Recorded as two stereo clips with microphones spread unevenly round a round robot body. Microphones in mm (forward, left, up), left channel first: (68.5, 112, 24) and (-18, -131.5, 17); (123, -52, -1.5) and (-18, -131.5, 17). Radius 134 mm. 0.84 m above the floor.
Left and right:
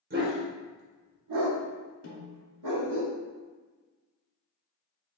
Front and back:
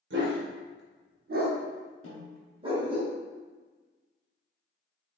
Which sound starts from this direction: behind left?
A snare drum, at 2.0 s.